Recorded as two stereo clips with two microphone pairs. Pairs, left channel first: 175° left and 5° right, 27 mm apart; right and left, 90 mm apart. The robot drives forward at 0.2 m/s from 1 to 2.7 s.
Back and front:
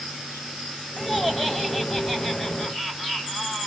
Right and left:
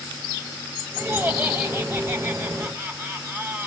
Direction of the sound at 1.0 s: 80° left.